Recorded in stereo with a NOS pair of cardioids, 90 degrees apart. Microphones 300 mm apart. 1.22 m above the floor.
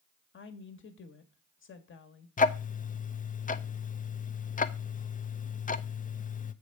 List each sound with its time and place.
0.3 s a woman speaking: 40° left, 1.6 m
2.4 s ticking: 25° left, 0.6 m